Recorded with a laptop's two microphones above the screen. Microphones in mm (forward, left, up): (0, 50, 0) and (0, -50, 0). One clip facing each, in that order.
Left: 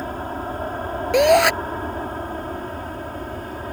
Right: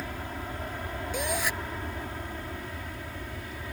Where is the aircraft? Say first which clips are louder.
Left 9 dB; 45° left (ahead or behind); by 3.7 s 50° left (ahead or behind).